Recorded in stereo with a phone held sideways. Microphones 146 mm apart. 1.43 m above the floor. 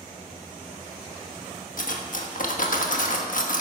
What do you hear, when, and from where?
1.8 s cutlery clinking: 60° left (ahead or behind), 1.3 m